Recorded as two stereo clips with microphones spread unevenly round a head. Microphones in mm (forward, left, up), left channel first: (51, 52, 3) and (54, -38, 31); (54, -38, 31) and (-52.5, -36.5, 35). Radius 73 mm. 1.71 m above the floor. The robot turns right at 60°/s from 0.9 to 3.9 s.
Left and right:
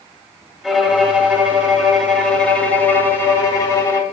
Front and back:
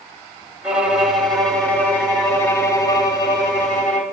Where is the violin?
115° right, 1.6 m; by 4.0 s 65° left, 1.6 m.